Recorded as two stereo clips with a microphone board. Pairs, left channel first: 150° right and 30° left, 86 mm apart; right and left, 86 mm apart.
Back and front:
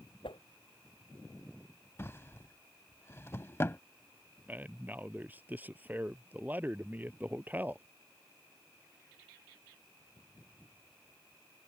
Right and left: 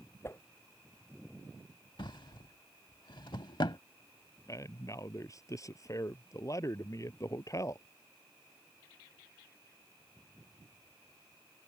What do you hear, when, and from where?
0.2 s a whoosh: 150° right
2.0 s a drawer: 95° right
4.5 s a man speaking: 40° right